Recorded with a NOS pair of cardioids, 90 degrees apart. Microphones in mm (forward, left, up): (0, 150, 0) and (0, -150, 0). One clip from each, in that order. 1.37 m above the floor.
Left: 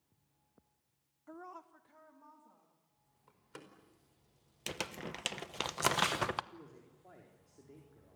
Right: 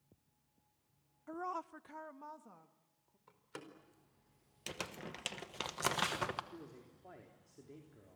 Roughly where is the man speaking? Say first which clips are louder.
Right 1 dB; ahead.